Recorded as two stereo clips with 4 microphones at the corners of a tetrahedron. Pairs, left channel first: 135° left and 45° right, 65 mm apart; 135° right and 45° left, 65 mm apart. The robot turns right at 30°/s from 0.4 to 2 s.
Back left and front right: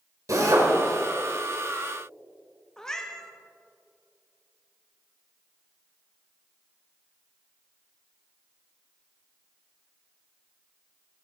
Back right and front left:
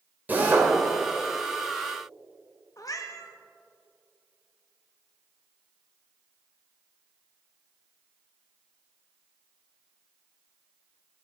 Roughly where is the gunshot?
No gunshot in this recording.